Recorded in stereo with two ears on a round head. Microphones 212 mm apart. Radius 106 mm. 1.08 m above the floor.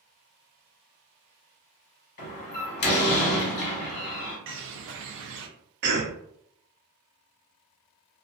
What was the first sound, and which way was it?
A door slam, 45° left (ahead or behind).